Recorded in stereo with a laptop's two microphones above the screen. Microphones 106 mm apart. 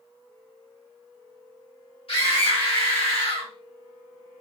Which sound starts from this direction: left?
A scream, at 2.1 s.